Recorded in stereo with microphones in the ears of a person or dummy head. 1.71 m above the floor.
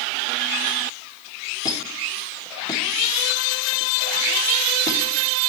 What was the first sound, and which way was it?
A squeak, 25° left (ahead or behind).